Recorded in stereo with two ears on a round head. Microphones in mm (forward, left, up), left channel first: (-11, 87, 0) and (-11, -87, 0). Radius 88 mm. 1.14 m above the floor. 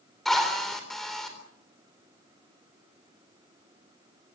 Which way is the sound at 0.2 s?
Centre (ahead or behind).